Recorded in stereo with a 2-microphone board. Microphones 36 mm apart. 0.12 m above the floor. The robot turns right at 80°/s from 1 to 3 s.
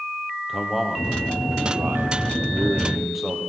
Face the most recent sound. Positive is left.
turn(degrees=-10)